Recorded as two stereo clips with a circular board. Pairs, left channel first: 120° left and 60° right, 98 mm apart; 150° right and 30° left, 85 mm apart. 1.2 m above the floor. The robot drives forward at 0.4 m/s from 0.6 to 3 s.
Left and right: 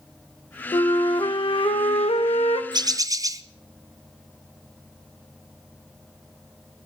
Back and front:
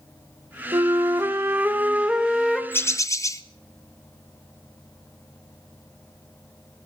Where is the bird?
90° right, 0.5 m; by 3.4 s 105° right, 0.5 m.